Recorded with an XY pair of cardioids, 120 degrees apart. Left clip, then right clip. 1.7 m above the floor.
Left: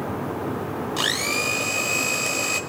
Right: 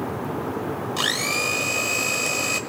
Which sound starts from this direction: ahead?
A blender, at 1.0 s.